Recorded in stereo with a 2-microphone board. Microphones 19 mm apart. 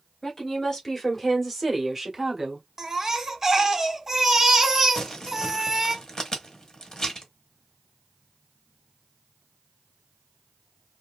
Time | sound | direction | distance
0.2 | a woman speaking | 30° left (ahead or behind) | 1.5 m
2.8 | a baby crying | 20° right (ahead or behind) | 0.8 m
5.0 | crumpling | 35° left (ahead or behind) | 1.0 m